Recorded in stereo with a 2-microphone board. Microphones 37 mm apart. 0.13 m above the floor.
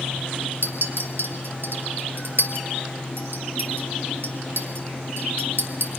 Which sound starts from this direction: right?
A clink, at 0.6 s.